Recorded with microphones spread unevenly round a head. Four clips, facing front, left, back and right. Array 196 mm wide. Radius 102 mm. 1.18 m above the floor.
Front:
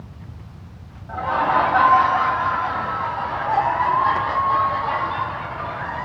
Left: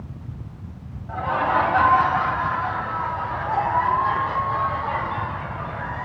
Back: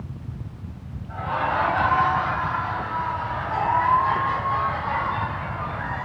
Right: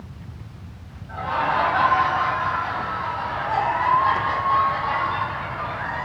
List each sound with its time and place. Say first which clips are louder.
1.1 s laughter: left 1 dB, front 5 dB; 35° left, 2.5 m; by 6.0 s 25° right, 4 m